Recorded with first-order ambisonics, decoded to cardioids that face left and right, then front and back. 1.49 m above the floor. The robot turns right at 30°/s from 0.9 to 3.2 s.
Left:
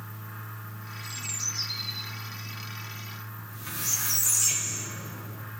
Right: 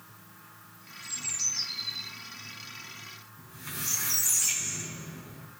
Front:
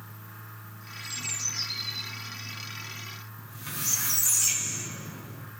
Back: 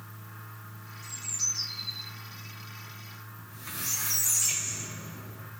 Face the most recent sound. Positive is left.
turn(degrees=15)